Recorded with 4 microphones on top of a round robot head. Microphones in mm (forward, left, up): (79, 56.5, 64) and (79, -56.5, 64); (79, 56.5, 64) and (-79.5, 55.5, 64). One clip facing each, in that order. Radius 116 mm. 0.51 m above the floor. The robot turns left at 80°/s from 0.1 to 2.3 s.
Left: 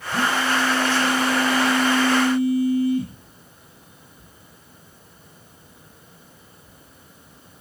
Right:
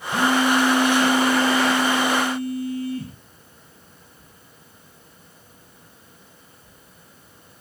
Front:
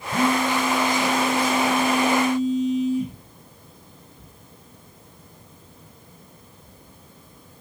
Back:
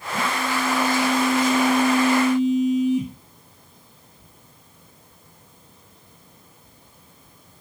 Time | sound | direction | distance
0.1 | a phone buzzing | 15° right | 6 m